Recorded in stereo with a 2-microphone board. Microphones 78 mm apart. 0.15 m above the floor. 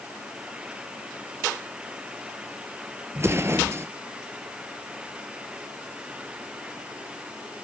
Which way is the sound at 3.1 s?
35° right (ahead or behind).